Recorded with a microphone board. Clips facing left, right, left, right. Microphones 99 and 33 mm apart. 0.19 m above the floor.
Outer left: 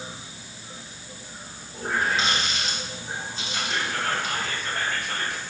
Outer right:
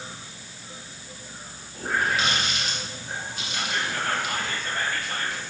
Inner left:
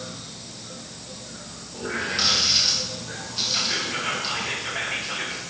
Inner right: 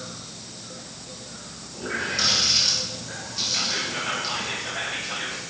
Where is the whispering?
65° left (ahead or behind), 4.5 m.